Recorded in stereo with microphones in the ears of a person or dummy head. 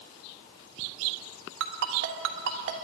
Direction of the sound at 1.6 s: 60° right (ahead or behind).